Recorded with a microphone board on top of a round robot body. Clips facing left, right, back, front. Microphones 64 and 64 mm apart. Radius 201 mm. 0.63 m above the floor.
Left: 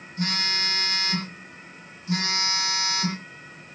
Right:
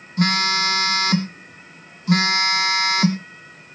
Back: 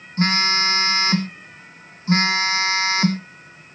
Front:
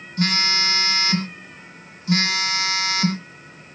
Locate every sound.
0.2 s a phone buzzing: 120° right, 0.7 m